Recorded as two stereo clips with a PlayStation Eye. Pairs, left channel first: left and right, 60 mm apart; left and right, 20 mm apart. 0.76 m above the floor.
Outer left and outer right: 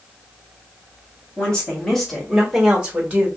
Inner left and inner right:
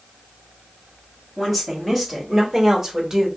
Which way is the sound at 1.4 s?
15° left (ahead or behind).